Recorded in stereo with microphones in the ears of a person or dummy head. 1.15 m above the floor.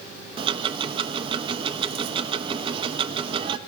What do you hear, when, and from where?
0.4 s ticking: 25° right (ahead or behind), 0.6 m